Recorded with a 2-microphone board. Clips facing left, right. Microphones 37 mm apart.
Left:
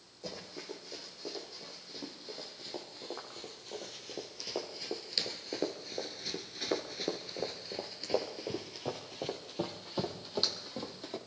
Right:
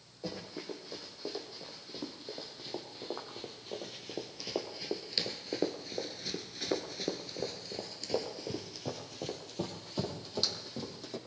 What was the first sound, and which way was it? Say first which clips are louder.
Running footsteps: right 3 dB; 15° right (ahead or behind).